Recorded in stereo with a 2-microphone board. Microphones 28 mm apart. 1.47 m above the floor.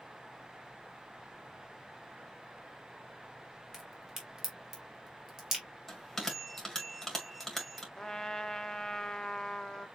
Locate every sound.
3.7 s a crack: 15° right (ahead or behind), 2.5 m
5.9 s a bell: 20° left (ahead or behind), 1.9 m
8.0 s a trumpet: 25° left (ahead or behind), 0.5 m